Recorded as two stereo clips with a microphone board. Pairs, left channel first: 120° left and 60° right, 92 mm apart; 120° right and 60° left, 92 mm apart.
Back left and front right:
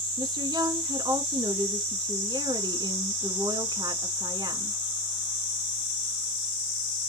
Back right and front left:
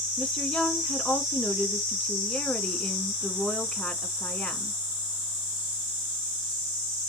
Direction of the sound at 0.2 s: 45° right.